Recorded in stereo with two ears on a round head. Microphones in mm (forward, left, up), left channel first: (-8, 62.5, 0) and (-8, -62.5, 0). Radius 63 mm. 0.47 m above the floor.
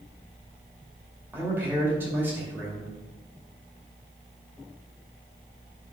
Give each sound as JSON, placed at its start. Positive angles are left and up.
{"t": 1.3, "sound": "a man speaking", "side_deg": -15, "distance_m": 2.5}